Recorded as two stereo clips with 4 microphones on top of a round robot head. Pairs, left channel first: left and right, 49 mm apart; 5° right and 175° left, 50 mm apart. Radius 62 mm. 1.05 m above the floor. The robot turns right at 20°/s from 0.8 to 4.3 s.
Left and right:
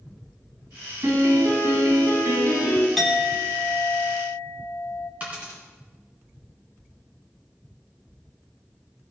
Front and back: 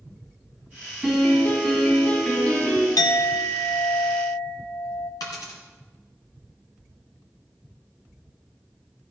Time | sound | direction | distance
1.0 | a piano | 110° right | 5.5 m
3.0 | a clink | 5° left | 1.0 m
5.2 | a dropped coin | 20° right | 2 m